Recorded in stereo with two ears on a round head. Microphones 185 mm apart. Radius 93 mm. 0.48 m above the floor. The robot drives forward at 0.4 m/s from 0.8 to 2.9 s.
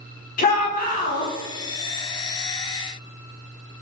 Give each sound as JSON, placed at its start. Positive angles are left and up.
{"t": 0.4, "sound": "a shout", "side_deg": 45, "distance_m": 1.2}